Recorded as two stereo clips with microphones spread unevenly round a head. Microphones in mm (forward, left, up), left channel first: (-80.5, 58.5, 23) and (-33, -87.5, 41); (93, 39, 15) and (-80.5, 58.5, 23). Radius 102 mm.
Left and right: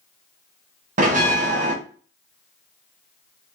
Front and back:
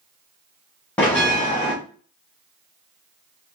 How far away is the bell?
About 1.0 m.